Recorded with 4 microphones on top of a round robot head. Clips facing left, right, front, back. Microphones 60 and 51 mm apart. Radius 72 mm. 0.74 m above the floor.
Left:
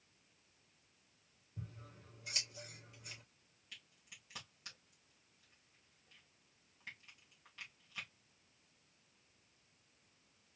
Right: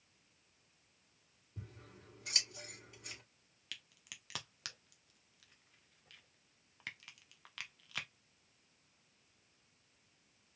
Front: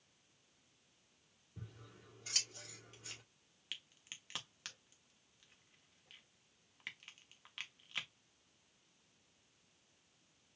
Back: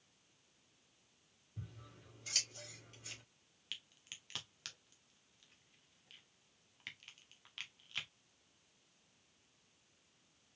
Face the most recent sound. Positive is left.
turn(degrees=-80)